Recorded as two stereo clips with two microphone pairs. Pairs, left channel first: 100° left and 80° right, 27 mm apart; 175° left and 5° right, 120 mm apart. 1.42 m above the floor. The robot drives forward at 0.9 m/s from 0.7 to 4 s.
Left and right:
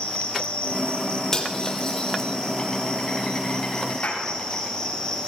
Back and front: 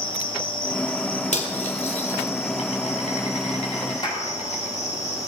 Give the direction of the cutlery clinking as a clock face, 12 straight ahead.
6 o'clock.